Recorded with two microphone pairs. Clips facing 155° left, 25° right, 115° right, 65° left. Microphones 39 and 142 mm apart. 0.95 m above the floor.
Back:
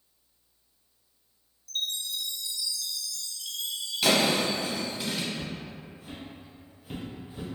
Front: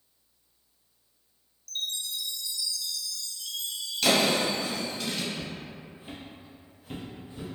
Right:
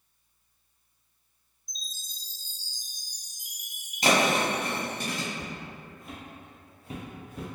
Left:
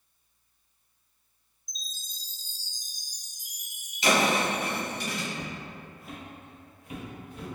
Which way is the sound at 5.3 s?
10° left.